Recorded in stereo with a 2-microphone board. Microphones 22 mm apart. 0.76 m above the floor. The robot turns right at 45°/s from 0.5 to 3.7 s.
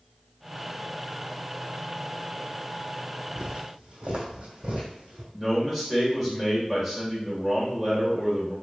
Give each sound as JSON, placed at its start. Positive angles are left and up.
{"t": 3.4, "sound": "footsteps", "side_deg": -35, "distance_m": 1.8}
{"t": 5.3, "sound": "a man speaking", "side_deg": -15, "distance_m": 2.5}